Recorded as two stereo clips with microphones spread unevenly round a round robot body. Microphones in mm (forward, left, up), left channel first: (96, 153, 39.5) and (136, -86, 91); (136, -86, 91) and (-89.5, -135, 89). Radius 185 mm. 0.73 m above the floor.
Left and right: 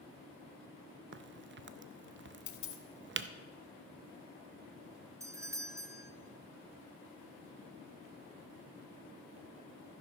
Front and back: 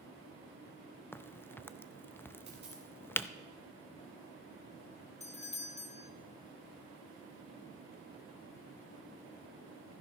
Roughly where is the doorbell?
Ahead.